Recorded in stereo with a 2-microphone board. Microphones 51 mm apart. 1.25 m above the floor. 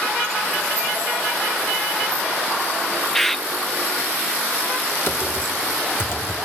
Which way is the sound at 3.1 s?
5° left (ahead or behind).